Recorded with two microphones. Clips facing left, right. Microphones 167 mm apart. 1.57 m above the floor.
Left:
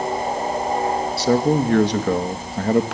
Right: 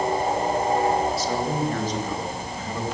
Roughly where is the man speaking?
Left.